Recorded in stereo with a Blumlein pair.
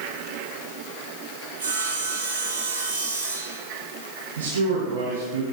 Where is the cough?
I don't hear a cough.